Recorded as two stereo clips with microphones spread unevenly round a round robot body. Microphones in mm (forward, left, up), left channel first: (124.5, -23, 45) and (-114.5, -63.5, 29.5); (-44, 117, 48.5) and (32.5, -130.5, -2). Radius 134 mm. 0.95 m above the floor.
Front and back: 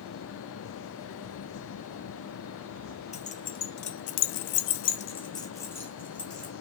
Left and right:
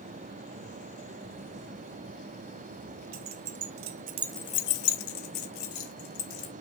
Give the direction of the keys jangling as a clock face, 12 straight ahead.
2 o'clock.